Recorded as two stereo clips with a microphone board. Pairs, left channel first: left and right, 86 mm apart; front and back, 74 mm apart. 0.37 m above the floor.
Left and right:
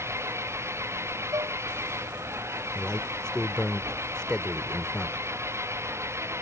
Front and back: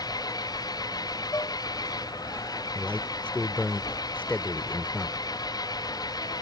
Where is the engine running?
30° right.